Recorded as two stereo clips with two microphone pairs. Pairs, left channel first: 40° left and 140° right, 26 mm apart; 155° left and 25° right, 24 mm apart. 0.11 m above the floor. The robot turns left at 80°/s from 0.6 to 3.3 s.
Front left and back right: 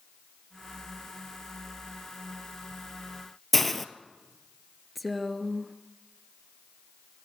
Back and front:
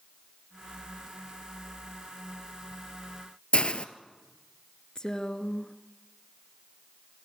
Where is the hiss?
125° left, 0.9 m.